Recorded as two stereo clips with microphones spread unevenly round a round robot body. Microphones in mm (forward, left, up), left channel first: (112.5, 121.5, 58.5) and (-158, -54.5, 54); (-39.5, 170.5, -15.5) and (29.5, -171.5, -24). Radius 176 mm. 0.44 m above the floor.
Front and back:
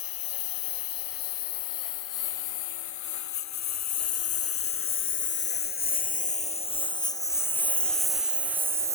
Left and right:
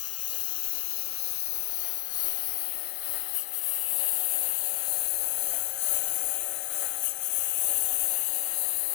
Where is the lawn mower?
50° left; by 8.9 s 135° left.